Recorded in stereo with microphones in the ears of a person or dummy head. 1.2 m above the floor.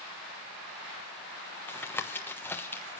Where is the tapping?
15° left (ahead or behind), 1.2 m.